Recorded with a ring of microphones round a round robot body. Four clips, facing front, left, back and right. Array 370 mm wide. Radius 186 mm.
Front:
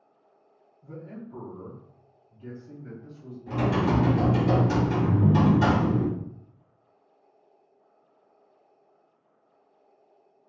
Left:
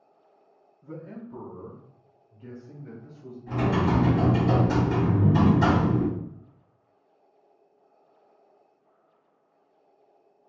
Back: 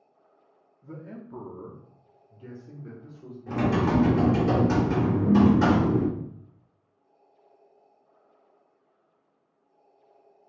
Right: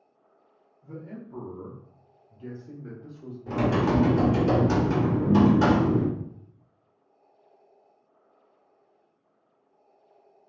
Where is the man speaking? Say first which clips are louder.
Left 1 dB, front 1 dB; 130° left, 1.2 m; by 3.4 s 110° right, 2 m.